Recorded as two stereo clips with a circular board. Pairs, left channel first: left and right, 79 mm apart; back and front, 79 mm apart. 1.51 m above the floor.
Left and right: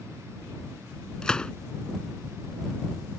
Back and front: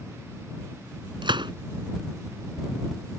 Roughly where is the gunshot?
Ahead.